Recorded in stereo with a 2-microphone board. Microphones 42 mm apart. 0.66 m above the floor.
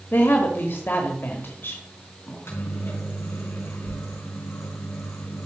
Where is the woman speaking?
55° left (ahead or behind), 1.3 m.